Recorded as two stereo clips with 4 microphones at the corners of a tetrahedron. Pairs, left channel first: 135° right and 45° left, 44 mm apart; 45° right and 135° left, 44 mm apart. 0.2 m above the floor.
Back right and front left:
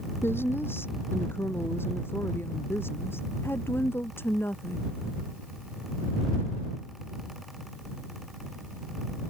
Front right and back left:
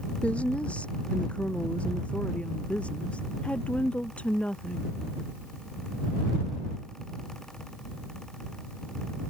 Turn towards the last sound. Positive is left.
turn(degrees=-110)